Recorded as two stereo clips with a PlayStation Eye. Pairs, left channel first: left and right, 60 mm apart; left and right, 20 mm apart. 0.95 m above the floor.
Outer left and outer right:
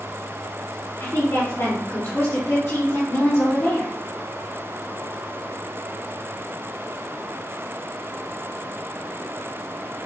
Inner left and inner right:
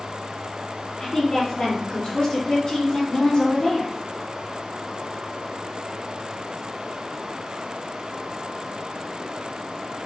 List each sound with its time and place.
1.0 s a woman speaking: 55° left (ahead or behind), 3 m